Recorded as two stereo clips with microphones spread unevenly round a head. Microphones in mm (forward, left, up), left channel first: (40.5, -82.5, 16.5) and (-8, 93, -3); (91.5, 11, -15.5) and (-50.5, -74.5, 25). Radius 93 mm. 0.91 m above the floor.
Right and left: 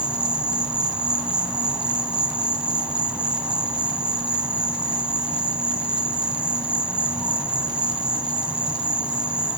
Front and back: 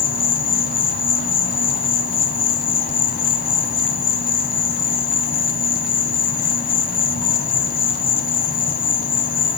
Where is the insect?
15° left, 0.9 m.